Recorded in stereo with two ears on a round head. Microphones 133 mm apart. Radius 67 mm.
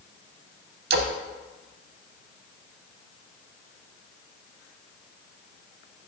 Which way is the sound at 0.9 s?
75° right (ahead or behind).